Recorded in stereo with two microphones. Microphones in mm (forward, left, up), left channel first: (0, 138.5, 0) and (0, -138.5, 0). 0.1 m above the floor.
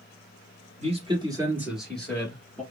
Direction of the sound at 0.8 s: 25° right (ahead or behind).